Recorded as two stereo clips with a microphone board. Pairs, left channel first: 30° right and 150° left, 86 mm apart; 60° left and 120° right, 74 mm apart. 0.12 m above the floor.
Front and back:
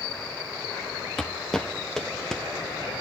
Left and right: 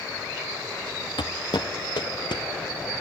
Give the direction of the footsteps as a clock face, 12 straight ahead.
10 o'clock.